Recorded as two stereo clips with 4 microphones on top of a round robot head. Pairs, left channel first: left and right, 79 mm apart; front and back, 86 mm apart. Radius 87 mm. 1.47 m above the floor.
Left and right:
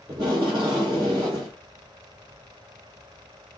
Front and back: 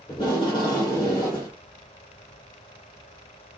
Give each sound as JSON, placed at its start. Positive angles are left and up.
{"t": 0.1, "sound": "tape being pulled", "azimuth_deg": -50, "distance_m": 1.3}